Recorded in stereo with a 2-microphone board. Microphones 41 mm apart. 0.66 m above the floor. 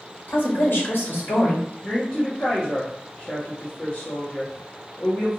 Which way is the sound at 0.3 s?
55° left (ahead or behind).